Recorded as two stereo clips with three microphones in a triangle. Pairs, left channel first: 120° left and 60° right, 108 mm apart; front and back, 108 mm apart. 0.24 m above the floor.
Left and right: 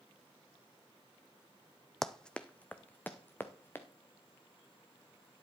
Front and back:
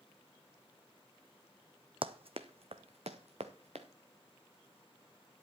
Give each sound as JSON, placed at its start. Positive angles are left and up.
{"t": 2.0, "sound": "running footsteps", "azimuth_deg": -155, "distance_m": 0.6}